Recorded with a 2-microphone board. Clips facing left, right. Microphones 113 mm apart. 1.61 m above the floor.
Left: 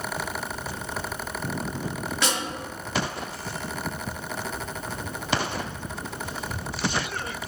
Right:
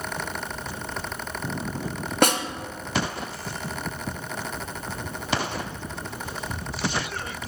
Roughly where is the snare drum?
Right.